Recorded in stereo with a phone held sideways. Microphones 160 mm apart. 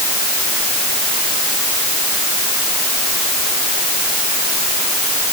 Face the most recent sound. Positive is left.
No sound to turn to.